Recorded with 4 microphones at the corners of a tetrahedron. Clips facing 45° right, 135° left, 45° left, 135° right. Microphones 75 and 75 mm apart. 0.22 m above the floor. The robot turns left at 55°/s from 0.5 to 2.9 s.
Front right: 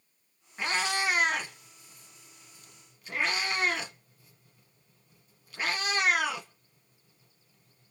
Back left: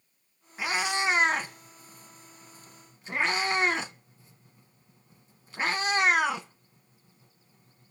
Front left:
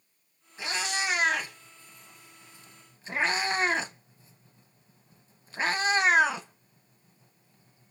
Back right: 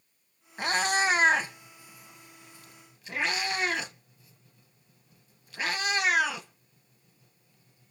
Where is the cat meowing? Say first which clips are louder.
Back left 1 dB, back right 6 dB; 140° right, 0.9 m; by 7.9 s 90° left, 0.9 m.